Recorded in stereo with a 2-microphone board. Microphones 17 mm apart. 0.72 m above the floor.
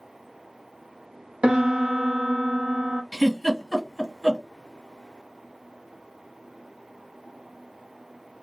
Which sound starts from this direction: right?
A piano, at 1.4 s.